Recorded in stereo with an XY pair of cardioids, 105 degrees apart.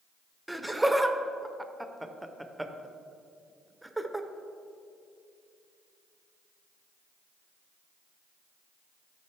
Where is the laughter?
5° right, 0.8 m.